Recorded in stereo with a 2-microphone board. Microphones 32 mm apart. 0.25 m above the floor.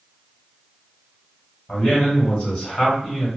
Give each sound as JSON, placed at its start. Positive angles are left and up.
{"t": 1.7, "sound": "a man speaking", "side_deg": 25, "distance_m": 1.5}